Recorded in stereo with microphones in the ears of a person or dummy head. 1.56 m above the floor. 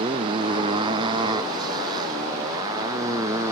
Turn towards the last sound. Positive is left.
turn(degrees=-15)  # may be behind; listen again after turning